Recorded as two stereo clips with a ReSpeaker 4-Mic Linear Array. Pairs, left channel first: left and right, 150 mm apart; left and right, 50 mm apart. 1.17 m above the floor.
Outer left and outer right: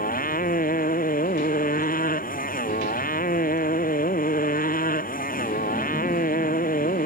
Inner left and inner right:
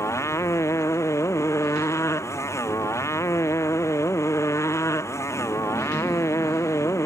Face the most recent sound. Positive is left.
turn(degrees=70)  # may be behind; listen again after turning